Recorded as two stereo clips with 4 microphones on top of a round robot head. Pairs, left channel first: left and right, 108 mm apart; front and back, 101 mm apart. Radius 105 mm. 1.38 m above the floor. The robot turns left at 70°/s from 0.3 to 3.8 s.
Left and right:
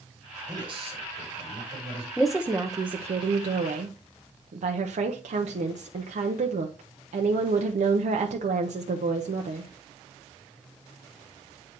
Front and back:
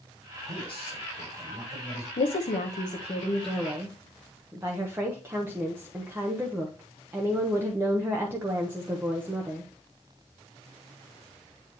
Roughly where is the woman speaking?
Ahead.